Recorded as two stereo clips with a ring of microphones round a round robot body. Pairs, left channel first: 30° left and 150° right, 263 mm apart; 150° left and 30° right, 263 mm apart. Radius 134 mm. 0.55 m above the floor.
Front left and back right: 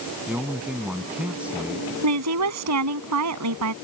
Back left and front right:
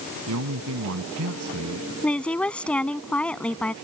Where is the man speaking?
65° right.